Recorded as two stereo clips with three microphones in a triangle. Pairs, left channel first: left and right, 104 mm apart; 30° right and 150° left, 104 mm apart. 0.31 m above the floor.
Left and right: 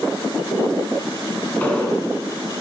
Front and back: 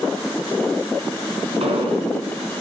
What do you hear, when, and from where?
1.6 s an explosion: 165° left, 4 m